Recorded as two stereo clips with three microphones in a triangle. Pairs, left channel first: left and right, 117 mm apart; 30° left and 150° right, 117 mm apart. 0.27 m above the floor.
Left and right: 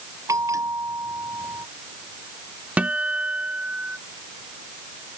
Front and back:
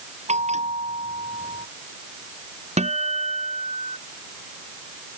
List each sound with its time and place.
0.3 s a bell: 150° right
2.8 s a guitar: 170° right